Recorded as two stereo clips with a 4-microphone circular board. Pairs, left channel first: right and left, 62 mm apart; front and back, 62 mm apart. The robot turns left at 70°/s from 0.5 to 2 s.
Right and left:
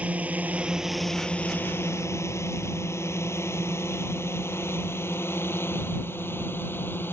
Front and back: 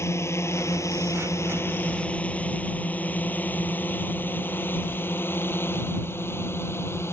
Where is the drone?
30° left; by 7.1 s 40° right.